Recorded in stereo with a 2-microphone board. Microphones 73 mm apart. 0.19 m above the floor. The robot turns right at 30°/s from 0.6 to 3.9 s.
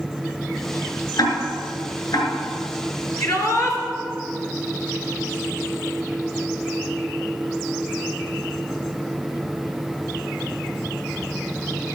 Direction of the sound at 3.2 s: 55° left (ahead or behind).